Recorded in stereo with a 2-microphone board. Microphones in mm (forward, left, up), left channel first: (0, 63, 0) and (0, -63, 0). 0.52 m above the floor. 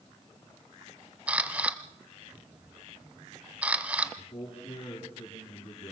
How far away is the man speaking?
About 8 m.